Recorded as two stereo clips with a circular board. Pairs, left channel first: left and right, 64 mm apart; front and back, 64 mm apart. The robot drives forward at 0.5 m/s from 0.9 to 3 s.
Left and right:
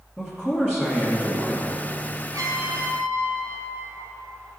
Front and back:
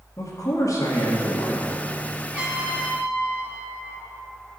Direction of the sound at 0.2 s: 5° right.